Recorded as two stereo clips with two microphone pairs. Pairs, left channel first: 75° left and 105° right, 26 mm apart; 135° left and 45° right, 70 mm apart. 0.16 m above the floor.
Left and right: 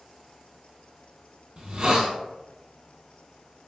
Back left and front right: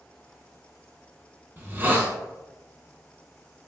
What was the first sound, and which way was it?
A hiss, 85° right.